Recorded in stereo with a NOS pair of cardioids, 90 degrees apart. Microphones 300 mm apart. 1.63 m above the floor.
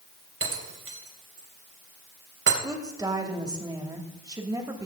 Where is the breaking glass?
45° right, 3.5 m.